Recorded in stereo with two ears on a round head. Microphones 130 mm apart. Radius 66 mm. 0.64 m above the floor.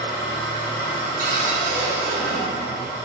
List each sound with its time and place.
0.0 s an engine running: 30° left (ahead or behind), 2 m
1.2 s a cupboard door: 70° right (ahead or behind), 3.5 m